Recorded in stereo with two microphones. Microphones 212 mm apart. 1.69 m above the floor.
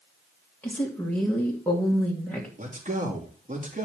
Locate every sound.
0.6 s a woman speaking: 10° left (ahead or behind), 2.5 m
2.6 s a man speaking: 35° right (ahead or behind), 3 m